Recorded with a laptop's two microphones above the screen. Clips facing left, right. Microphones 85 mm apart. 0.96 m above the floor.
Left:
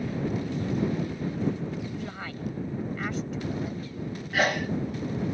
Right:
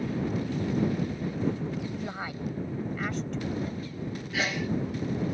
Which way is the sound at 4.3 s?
50° left (ahead or behind).